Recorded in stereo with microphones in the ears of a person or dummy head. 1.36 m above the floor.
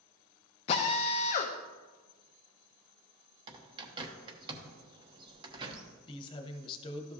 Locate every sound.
0.7 s a drill: 25° left (ahead or behind), 0.6 m
3.5 s a bird: 25° right (ahead or behind), 0.9 m
6.1 s a man speaking: 30° left (ahead or behind), 0.9 m